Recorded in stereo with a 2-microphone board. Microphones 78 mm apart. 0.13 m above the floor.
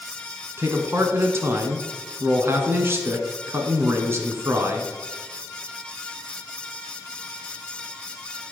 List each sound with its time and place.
0.6 s a man speaking: 30° right (ahead or behind), 1.1 m